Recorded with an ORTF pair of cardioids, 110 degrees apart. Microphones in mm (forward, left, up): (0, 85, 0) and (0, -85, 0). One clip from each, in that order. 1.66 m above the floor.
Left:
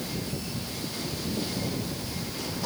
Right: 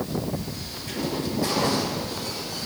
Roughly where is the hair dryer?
I don't hear a hair dryer.